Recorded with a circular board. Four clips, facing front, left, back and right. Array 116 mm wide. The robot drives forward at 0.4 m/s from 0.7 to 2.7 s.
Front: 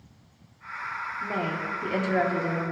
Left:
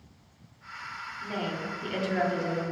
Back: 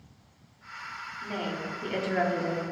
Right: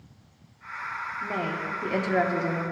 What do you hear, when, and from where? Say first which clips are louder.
1.2 s a woman speaking: right 2 dB, front 3 dB; 45° right, 1.1 m; by 2.6 s 100° right, 1.0 m